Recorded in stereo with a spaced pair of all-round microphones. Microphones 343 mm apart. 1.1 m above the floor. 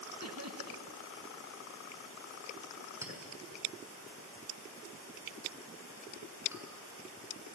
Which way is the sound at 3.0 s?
10° right (ahead or behind).